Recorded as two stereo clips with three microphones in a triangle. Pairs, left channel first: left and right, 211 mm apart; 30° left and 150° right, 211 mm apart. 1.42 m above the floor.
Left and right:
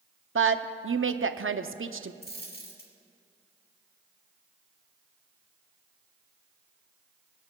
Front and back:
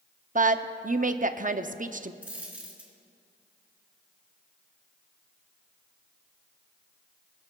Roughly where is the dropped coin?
Behind left.